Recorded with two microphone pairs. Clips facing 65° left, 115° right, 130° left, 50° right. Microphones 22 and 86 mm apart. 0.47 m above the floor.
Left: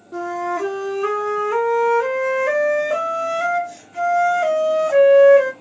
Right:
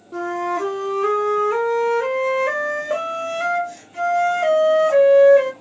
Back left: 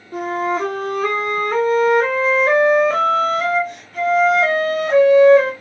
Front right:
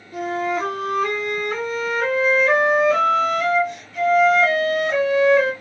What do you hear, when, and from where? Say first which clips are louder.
0.1 s a flute: even, back left 2 dB; 165° left, 0.9 m